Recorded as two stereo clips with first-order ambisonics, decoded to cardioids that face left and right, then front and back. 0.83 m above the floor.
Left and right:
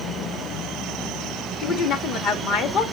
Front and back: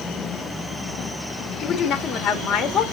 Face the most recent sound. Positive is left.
turn(degrees=55)